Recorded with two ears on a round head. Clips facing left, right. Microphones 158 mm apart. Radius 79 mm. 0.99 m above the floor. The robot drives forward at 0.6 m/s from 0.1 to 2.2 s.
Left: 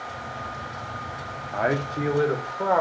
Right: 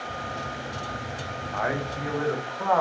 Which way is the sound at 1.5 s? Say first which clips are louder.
Left 4 dB; 35° left (ahead or behind).